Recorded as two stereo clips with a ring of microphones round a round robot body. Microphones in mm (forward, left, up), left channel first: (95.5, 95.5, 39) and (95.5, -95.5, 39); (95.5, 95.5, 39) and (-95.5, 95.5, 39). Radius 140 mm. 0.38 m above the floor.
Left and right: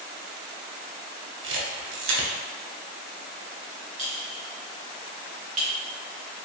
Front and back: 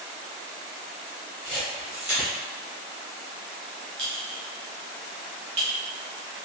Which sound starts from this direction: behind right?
A clink, at 4.0 s.